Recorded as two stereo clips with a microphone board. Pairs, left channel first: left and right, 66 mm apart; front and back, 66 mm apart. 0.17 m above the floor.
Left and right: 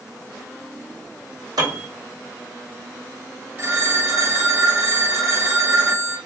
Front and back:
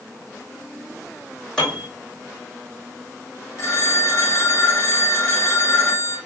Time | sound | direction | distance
1.6 | a piano | 80° right | 1.5 m
3.6 | a phone ringing | 45° right | 1.9 m